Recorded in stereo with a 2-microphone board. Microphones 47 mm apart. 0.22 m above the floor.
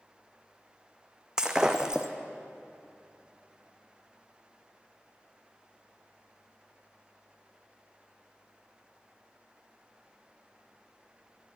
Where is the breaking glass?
15° right (ahead or behind), 1.1 m.